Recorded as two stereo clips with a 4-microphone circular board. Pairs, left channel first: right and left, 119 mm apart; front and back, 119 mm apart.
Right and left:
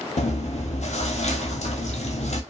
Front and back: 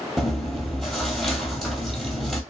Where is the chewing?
90° right, 0.7 m.